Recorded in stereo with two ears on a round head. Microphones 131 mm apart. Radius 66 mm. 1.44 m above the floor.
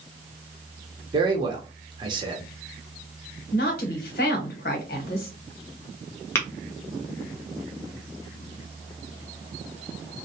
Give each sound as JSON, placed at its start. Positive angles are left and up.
{"t": 1.1, "sound": "a man speaking", "side_deg": -30, "distance_m": 0.7}
{"t": 3.5, "sound": "a woman speaking", "side_deg": 70, "distance_m": 1.0}
{"t": 6.3, "sound": "tapping", "side_deg": 15, "distance_m": 0.8}